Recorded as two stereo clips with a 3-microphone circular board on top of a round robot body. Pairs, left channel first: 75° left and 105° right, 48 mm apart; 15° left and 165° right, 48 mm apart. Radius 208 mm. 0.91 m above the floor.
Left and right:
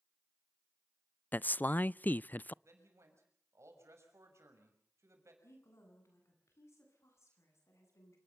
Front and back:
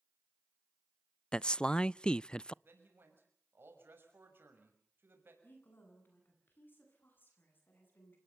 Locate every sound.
1.3 s a man speaking: 70° left, 0.5 m
2.6 s a man speaking: 125° right, 6 m
5.4 s a woman speaking: 55° left, 9 m